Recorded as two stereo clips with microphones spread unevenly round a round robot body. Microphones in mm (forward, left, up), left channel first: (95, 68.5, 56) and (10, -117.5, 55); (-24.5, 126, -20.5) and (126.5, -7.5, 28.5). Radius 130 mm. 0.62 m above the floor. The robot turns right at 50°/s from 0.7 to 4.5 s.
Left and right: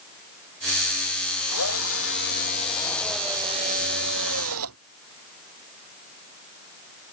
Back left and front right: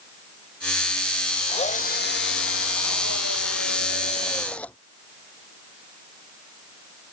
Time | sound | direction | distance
1.5 | a drill | 75° left | ?